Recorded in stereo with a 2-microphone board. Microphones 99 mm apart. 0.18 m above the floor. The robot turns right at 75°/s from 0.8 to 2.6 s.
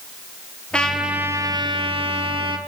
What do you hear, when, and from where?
0.7 s a trumpet: 170° left, 1.2 m; by 2.6 s 55° right, 1.2 m